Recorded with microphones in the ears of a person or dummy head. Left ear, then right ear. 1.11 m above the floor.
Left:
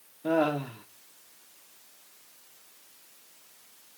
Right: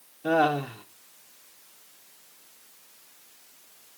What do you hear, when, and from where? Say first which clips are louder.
0.2 s laughter: right 3 dB; 10° right (ahead or behind), 1.4 m